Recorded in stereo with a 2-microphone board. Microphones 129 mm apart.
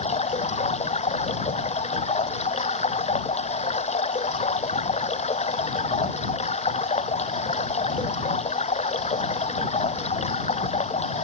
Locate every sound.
0.0 s running water: 55° left (ahead or behind)